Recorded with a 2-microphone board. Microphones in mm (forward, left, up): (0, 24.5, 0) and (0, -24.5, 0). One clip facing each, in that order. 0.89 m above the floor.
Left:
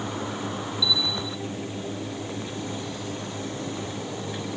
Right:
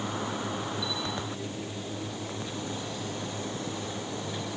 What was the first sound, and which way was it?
A bell, 55° right (ahead or behind).